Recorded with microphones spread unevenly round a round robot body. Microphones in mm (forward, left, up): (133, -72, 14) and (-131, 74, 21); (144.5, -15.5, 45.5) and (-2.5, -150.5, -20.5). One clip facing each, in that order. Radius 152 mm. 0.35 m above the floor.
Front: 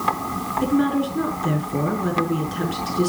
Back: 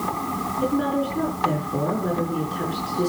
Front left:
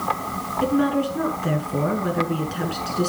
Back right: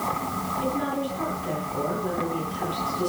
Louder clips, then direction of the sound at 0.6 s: Front 4 dB, front left 8 dB; 35° left.